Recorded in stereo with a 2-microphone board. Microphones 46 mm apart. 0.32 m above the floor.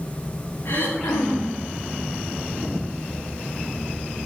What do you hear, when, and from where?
0.7 s throat clearing: 85° left, 7 m